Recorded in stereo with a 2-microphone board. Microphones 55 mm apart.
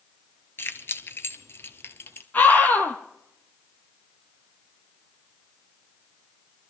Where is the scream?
30° left (ahead or behind), 2.5 m.